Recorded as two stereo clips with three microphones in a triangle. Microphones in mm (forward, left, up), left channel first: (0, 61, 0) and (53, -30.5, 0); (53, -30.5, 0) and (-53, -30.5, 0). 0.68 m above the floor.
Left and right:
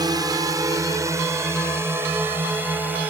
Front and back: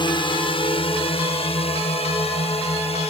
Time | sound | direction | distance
0.0 | a drone | 20° right | ?